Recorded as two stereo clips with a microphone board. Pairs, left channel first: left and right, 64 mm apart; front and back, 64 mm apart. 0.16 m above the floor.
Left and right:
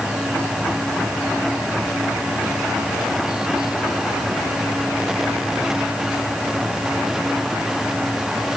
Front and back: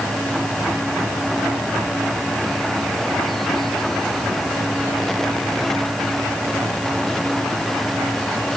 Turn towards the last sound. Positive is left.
No sound to turn to.